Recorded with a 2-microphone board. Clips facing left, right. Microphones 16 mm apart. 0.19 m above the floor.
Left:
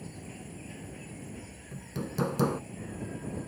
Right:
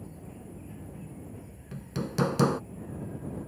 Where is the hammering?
35° right (ahead or behind).